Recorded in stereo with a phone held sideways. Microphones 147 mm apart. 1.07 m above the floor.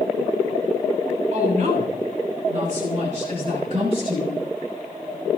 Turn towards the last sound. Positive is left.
turn(degrees=-40)  # may be behind; listen again after turning